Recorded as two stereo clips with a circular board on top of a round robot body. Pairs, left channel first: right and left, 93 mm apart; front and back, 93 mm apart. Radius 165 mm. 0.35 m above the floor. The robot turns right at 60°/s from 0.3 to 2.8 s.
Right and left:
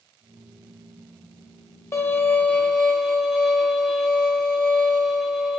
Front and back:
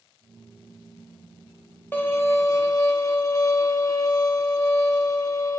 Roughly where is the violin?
Ahead right.